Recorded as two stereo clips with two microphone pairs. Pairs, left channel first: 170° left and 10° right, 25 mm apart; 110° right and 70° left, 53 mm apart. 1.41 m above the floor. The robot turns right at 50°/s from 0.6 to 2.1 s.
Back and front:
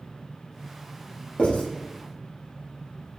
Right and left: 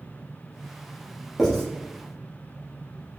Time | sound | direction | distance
1.4 | writing | 155° left | 1.4 m